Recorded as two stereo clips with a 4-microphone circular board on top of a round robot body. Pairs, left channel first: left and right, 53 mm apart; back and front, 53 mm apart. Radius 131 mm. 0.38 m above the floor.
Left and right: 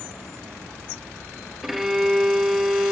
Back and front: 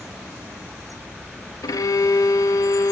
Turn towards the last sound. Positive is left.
turn(degrees=-175)